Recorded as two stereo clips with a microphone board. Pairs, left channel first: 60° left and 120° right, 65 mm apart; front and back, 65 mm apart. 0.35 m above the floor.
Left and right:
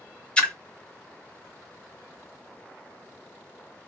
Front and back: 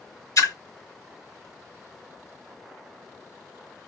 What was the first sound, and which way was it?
A splash, 10° right.